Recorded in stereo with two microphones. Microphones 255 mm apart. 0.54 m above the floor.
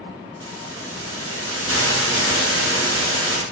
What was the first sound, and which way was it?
A hiss, 55° right (ahead or behind).